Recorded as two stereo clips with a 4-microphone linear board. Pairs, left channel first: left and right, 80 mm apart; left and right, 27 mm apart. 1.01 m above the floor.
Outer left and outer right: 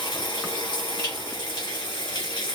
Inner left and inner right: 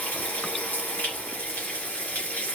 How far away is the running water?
About 2.5 m.